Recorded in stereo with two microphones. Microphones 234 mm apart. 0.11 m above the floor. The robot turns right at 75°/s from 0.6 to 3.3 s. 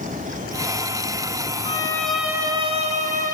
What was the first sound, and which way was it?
A violin, 145° left.